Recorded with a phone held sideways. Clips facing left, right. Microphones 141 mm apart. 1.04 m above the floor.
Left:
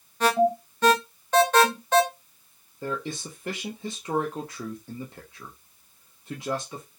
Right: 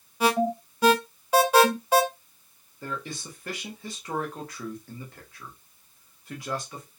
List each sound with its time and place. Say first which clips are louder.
0.2 s an alarm: left 2 dB; 10° right (ahead or behind), 0.6 m
2.8 s a man speaking: left 4 dB; 25° left (ahead or behind), 0.6 m